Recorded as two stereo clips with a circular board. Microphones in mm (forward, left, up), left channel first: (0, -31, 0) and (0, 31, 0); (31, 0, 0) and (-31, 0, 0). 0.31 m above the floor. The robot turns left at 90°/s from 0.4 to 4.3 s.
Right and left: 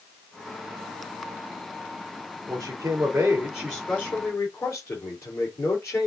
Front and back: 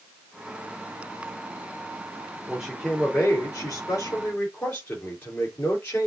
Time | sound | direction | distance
2.5 | a man speaking | 115° left | 4.5 m